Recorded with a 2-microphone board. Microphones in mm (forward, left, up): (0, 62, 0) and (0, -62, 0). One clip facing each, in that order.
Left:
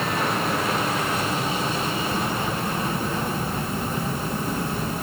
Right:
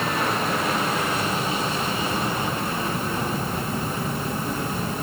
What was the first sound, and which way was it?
Only background noise.